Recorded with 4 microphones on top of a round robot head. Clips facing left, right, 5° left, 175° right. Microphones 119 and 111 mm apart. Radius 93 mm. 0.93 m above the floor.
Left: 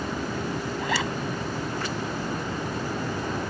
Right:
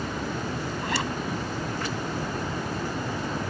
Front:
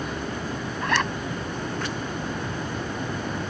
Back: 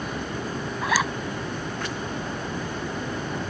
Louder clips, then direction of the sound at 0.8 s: Left 2 dB, even; 100° left.